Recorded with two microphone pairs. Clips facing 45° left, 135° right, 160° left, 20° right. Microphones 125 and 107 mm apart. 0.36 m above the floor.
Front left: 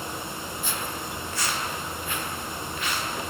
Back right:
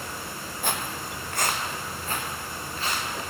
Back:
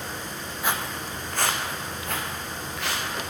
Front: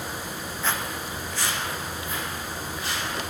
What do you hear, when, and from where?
0.6 s footsteps: 125° right, 0.8 m; by 3.0 s 170° left, 3 m